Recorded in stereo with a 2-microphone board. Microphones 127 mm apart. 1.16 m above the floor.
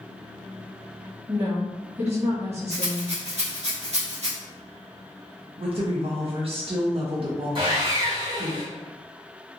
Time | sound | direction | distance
1.3 | a woman speaking | 55° right (ahead or behind) | 1.1 m
2.7 | a rattle | 60° right (ahead or behind) | 1.1 m
5.6 | a woman speaking | 50° right (ahead or behind) | 0.6 m
7.5 | sawing | 40° right (ahead or behind) | 1.9 m